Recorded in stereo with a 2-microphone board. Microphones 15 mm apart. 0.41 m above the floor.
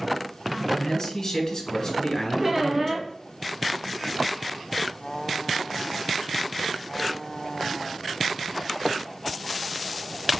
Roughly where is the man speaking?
Left.